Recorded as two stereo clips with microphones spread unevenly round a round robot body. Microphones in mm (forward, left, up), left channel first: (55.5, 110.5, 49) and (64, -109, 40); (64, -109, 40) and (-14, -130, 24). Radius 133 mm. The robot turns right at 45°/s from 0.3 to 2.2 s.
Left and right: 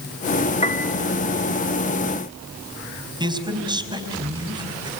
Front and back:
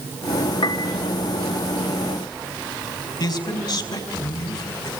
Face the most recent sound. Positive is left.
turn(degrees=-20)